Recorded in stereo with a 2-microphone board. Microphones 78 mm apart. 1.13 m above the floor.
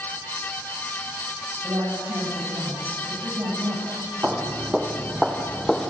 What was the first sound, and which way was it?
A woman speaking, 50° right (ahead or behind).